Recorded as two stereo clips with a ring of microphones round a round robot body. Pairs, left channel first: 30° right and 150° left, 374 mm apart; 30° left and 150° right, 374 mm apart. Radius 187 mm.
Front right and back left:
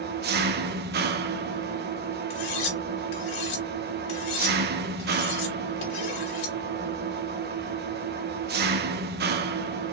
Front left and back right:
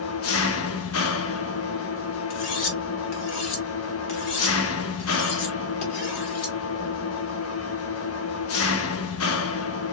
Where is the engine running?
85° left, 0.9 m.